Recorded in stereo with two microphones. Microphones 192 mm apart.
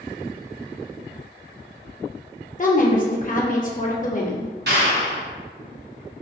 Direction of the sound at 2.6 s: 45° left (ahead or behind).